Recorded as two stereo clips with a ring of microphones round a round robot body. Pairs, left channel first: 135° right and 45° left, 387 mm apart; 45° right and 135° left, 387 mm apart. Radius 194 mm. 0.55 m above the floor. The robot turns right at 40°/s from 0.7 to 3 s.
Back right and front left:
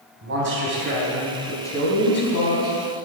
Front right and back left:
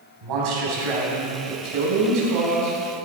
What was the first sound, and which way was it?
A man speaking, 105° left.